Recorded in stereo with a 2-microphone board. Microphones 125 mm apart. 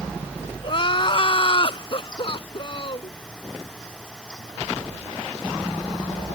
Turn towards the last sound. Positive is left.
turn(degrees=45)  # may be behind; listen again after turning